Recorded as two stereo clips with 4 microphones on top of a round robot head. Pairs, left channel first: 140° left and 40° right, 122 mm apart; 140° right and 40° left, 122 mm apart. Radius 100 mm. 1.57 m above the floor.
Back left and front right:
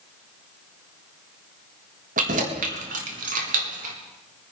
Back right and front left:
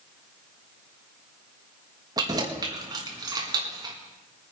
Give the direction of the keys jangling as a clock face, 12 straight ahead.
1 o'clock.